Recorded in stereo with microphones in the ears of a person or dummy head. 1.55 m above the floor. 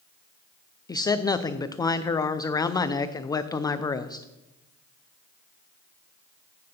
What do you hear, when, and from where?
0.9 s a man speaking: 20° left (ahead or behind), 0.5 m